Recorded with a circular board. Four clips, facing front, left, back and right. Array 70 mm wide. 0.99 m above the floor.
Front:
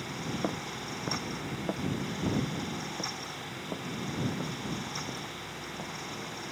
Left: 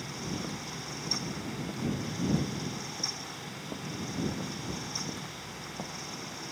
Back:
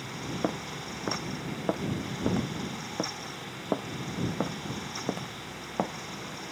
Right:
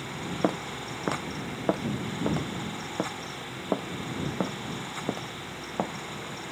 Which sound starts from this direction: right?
Footsteps, at 0.4 s.